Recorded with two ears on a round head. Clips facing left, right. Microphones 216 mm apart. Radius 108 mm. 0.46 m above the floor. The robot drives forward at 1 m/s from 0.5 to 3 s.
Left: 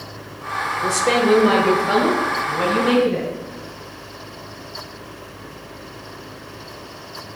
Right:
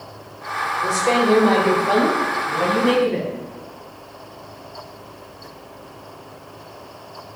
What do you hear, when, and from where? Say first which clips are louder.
0.8 s a woman speaking: left 1 dB; 25° left (ahead or behind), 1.3 m; by 3.3 s 10° left (ahead or behind), 3 m